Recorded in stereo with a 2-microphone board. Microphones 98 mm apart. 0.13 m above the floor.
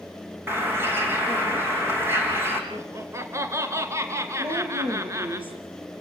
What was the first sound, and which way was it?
A bird, 25° right (ahead or behind).